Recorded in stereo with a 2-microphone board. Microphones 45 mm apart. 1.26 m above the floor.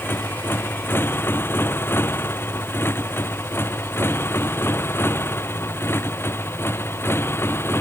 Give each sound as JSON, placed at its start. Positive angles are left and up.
{"t": 0.0, "sound": "a motorcycle", "side_deg": 55}